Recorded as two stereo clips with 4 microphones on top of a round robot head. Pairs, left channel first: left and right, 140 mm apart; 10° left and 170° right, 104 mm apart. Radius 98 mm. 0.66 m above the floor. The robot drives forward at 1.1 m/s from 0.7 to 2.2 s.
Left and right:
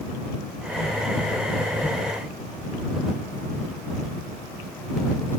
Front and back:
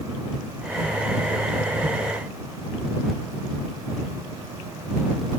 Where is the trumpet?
No trumpet in this recording.